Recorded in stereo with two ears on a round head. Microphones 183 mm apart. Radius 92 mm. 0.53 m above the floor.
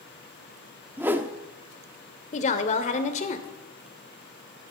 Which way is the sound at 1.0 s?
10° right (ahead or behind).